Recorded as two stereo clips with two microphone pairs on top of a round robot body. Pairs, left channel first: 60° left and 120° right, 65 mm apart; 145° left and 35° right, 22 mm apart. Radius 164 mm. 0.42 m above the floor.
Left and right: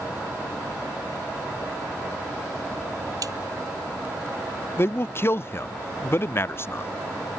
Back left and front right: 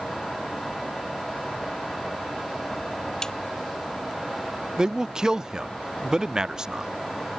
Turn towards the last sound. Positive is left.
turn(degrees=15)